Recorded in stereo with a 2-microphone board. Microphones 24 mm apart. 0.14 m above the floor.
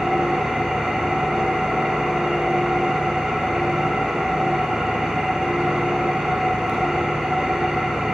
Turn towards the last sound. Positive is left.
turn(degrees=-20)  # may be behind; listen again after turning